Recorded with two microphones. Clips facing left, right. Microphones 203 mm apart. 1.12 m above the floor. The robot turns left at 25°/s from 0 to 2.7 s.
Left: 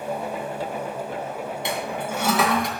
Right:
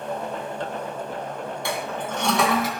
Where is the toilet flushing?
20° left (ahead or behind), 2.5 m; by 2.7 s 5° right (ahead or behind), 2.5 m.